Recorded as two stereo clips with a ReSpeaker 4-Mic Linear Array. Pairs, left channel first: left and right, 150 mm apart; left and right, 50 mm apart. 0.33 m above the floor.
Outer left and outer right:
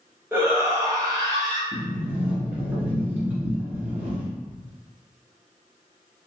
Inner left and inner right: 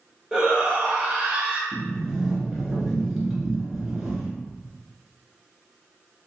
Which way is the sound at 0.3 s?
15° right (ahead or behind).